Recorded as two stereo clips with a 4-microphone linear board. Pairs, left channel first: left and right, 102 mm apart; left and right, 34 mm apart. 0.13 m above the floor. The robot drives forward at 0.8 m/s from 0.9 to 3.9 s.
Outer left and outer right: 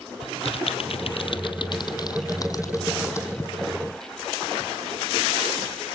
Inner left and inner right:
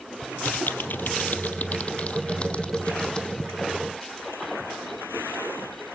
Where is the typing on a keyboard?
65° left (ahead or behind), 1.1 m; by 3.5 s 25° left (ahead or behind), 2.5 m.